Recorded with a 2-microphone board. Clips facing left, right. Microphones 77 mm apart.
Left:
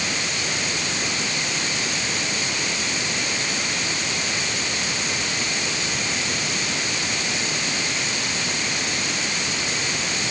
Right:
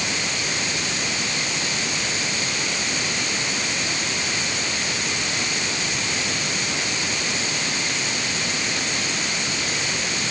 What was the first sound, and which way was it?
Only background noise.